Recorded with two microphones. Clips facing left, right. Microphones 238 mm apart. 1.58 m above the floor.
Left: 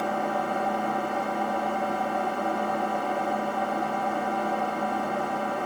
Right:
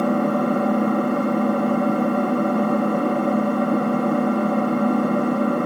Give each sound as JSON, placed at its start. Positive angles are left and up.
{"t": 0.0, "sound": "an engine running", "side_deg": -60, "distance_m": 1.2}